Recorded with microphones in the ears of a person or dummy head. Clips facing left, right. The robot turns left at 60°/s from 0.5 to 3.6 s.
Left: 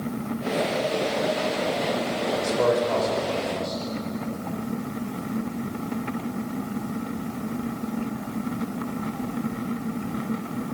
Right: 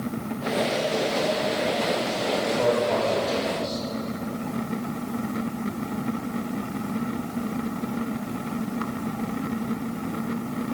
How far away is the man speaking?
About 7 m.